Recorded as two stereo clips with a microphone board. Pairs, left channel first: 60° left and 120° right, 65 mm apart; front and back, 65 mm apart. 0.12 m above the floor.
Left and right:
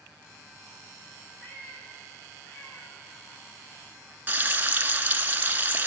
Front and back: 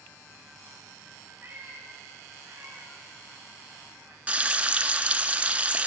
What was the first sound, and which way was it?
A cat meowing, 125° left.